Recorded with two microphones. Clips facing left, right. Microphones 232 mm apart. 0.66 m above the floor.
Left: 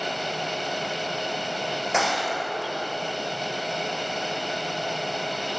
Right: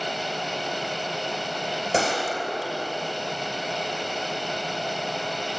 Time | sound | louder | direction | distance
1.9 | a gunshot | right 4 dB | 35° right (ahead or behind) | 5.5 m